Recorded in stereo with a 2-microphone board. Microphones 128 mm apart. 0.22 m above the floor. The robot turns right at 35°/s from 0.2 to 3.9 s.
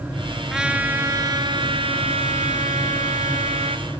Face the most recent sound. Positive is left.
turn(degrees=-55)